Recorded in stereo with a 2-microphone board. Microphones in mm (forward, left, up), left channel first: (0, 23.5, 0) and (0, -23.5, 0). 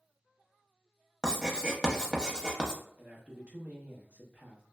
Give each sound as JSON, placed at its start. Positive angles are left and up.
{"t": 1.2, "sound": "writing", "side_deg": -15, "distance_m": 0.5}
{"t": 3.0, "sound": "a man speaking", "side_deg": -30, "distance_m": 0.7}